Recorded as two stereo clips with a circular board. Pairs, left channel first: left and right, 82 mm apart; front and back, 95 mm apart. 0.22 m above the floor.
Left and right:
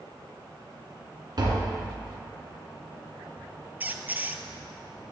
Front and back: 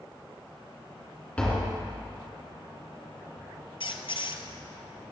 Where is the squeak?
20° right, 0.5 m.